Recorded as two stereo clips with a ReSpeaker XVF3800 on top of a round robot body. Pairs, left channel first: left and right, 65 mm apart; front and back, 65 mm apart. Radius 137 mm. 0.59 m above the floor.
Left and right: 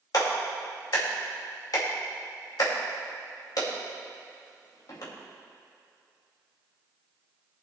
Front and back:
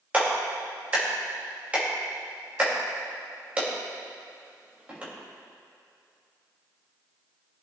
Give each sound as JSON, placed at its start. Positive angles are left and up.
{"t": 0.1, "sound": "a clap", "azimuth_deg": 110, "distance_m": 3.0}